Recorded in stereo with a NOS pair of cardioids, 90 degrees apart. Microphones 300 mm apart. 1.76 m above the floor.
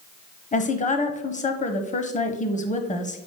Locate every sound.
0.5 s a woman speaking: 25° left, 1.2 m